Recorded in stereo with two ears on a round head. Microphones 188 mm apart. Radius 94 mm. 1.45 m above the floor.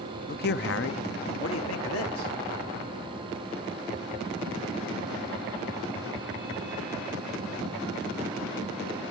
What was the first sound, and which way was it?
A man speaking, 45° left (ahead or behind).